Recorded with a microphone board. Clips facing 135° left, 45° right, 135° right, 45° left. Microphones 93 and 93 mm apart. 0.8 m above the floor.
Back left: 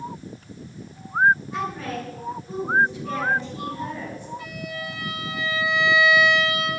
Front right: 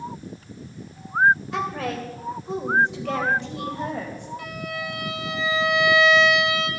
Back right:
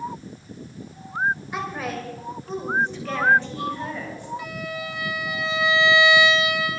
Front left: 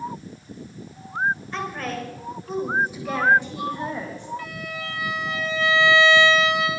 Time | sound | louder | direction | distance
1.5 | a woman speaking | front right 2 dB, even | 55° right | 3 m
4.4 | a violin | front right 2 dB, back right 2 dB | 60° right | 3.5 m